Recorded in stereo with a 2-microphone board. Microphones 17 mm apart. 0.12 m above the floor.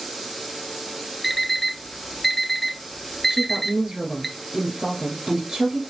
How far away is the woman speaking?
About 1.6 m.